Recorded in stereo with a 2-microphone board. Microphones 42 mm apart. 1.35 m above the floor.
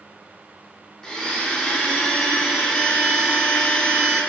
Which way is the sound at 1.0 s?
10° left (ahead or behind).